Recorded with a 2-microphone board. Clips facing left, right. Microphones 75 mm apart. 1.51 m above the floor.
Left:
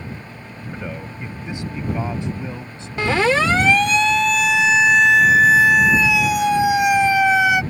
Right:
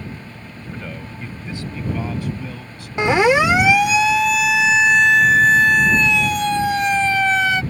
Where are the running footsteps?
No running footsteps in this recording.